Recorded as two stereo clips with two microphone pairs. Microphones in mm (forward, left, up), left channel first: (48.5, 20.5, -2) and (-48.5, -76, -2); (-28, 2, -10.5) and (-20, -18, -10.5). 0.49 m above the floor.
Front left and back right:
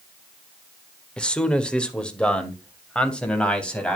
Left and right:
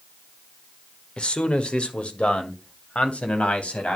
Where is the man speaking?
125° left, 1.4 m.